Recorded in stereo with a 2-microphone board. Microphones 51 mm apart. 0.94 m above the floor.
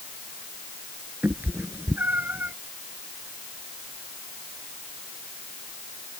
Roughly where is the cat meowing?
Right.